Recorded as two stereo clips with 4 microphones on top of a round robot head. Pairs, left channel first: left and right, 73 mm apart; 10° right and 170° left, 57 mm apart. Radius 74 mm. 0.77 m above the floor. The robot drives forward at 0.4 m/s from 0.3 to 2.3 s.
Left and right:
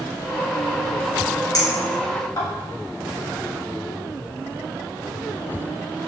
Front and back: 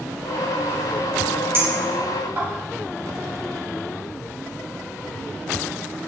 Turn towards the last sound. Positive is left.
turn(degrees=125)